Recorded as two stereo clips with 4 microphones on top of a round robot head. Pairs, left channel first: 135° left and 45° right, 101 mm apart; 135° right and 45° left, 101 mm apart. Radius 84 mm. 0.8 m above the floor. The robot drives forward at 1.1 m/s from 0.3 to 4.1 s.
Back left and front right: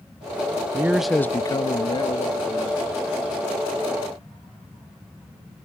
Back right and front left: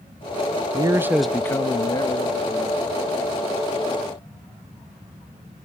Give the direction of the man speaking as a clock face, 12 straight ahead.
12 o'clock.